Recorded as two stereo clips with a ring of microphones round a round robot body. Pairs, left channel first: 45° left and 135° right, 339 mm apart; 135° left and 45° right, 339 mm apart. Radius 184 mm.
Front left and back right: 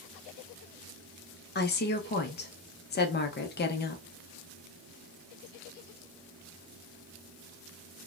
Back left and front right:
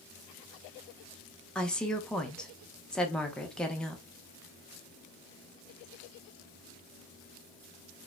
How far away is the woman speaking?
About 0.6 m.